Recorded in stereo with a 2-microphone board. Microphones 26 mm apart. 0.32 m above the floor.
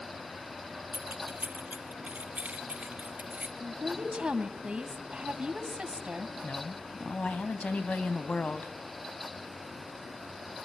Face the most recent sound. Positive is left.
turn(degrees=60)  # may be behind; listen again after turning